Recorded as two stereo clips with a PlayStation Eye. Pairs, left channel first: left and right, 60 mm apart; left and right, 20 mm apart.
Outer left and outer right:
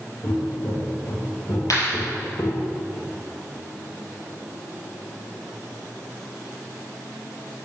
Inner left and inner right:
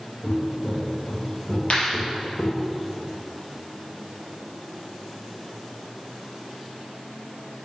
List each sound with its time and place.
0.2 s footsteps: 75° left (ahead or behind), 4.5 m; by 2.7 s 85° left, 3 m
1.7 s a clap: 65° left (ahead or behind), 4.5 m